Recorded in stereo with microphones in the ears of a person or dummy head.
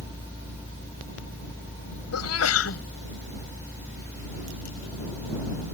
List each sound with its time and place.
2.1 s a sneeze: 85° left